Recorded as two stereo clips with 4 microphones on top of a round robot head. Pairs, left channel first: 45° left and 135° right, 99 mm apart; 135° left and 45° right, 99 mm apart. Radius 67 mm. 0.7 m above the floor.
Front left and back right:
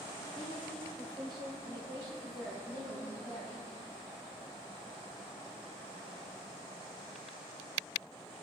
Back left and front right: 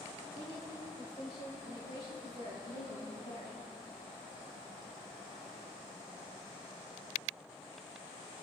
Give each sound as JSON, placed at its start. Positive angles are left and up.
{"t": 0.3, "sound": "a woman speaking", "azimuth_deg": 180, "distance_m": 3.5}